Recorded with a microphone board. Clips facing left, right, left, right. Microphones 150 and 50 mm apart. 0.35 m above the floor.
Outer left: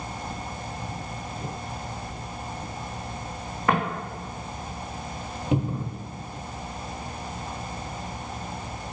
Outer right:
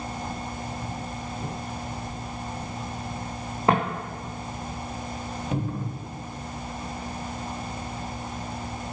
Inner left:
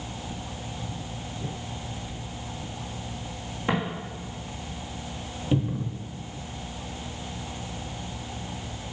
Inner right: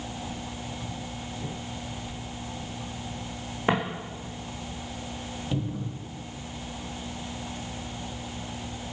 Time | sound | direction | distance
3.7 | footsteps | 25° right (ahead or behind) | 1.5 m
5.5 | a cupboard door | 25° left (ahead or behind) | 0.8 m